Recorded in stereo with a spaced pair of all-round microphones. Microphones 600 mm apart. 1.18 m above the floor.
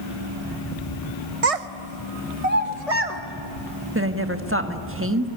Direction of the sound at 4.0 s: 20° right (ahead or behind).